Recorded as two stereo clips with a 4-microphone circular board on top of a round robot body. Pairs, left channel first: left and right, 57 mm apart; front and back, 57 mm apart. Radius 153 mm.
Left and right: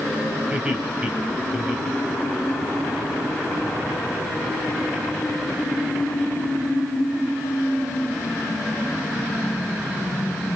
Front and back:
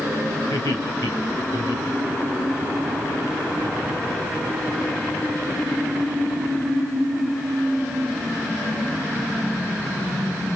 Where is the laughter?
20° right, 3 m; by 2.7 s straight ahead, 3.5 m.